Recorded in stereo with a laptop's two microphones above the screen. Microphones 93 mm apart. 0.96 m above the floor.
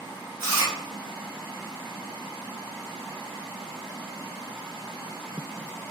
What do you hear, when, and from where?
0.4 s chewing: 30° right (ahead or behind), 1.1 m